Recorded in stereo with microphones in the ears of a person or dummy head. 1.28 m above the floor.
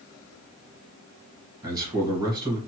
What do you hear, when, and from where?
1.6 s a man speaking: 25° right (ahead or behind), 1.3 m